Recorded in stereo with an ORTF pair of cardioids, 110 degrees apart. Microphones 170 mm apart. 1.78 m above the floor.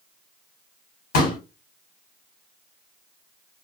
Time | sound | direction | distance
1.1 | a pop | 65° left | 2 m